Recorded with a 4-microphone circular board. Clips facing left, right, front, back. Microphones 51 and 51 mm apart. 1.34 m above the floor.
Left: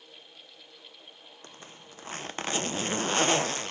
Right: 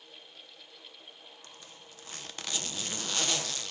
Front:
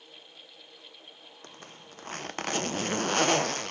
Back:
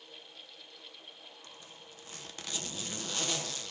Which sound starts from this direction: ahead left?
A zipper, at 1.4 s.